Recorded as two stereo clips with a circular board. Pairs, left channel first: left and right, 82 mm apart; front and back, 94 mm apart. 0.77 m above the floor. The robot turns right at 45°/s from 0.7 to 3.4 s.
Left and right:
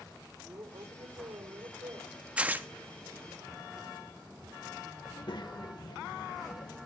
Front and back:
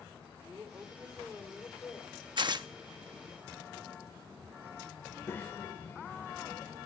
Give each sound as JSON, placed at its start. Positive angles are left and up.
{"t": 0.4, "sound": "a woman speaking", "azimuth_deg": -120, "distance_m": 2.5}
{"t": 2.4, "sound": "tearing paper", "azimuth_deg": -165, "distance_m": 0.8}
{"t": 5.0, "sound": "a child speaking", "azimuth_deg": 65, "distance_m": 1.3}